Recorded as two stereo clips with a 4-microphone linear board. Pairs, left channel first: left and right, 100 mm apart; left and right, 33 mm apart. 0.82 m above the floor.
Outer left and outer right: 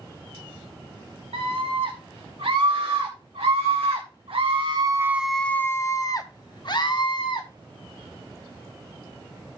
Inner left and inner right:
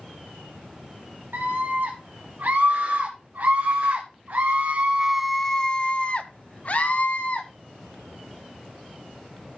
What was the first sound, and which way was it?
A scream, 75° right (ahead or behind).